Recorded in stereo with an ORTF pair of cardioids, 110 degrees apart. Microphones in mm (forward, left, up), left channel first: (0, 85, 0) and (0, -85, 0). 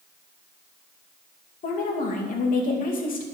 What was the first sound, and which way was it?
A woman speaking, 55° left.